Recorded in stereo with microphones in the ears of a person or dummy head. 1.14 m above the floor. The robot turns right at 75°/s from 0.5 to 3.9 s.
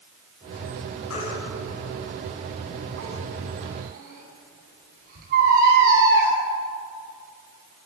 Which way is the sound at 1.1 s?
75° left (ahead or behind).